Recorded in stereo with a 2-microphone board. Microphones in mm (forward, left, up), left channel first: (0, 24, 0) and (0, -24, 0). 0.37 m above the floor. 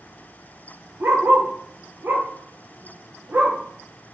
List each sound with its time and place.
1.0 s a dog barking: 50° right (ahead or behind), 2.5 m